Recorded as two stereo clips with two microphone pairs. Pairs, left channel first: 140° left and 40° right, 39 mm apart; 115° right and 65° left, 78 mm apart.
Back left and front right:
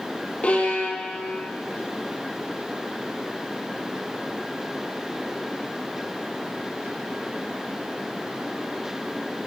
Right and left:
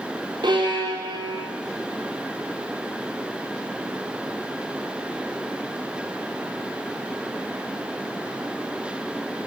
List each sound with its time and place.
0.4 s a violin: 80° left, 3 m